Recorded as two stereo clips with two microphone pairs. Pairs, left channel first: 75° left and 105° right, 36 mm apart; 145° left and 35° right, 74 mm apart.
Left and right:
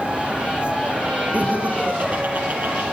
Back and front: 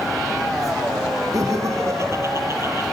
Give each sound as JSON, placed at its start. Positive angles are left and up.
{"t": 1.3, "sound": "laughter", "azimuth_deg": -75, "distance_m": 4.0}